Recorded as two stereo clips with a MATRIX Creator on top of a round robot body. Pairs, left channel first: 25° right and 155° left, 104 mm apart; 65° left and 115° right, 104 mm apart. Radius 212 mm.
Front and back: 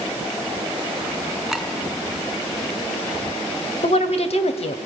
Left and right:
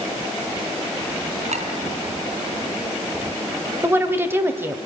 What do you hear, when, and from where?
1.5 s a clink: 115° right, 3 m
3.8 s a woman speaking: 45° right, 2.5 m